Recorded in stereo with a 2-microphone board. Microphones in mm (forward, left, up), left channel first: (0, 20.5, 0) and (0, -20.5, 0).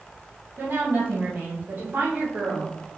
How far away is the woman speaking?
About 3.5 m.